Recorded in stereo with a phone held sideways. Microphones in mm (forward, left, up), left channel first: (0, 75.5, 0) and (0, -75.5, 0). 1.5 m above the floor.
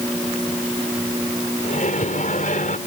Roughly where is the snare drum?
No snare drum in this recording.